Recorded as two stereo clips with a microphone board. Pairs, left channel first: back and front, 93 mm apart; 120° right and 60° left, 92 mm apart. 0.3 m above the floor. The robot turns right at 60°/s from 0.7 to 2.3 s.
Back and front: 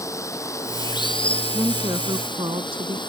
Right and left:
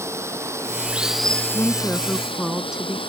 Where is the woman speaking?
70° right; by 3.0 s 20° right.